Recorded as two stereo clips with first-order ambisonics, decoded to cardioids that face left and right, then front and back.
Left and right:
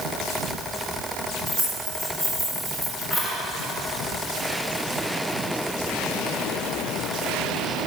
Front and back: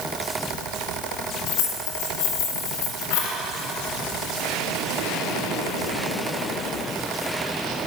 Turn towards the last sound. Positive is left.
turn(degrees=-5)